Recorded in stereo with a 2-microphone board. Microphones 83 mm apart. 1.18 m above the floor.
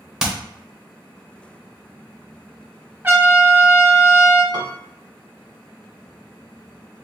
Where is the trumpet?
25° right (ahead or behind), 1.0 m.